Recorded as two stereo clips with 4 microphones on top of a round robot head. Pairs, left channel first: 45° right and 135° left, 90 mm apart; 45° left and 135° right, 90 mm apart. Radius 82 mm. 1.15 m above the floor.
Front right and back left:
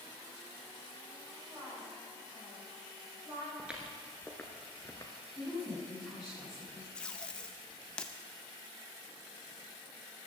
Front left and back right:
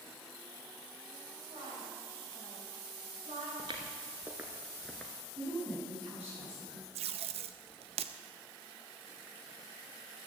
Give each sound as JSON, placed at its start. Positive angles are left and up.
{"t": 1.5, "sound": "a woman speaking", "azimuth_deg": -165, "distance_m": 7.0}
{"t": 3.6, "sound": "footsteps", "azimuth_deg": -150, "distance_m": 1.2}
{"t": 5.3, "sound": "a woman speaking", "azimuth_deg": -130, "distance_m": 7.0}
{"t": 7.0, "sound": "tape being pulled", "azimuth_deg": -125, "distance_m": 0.6}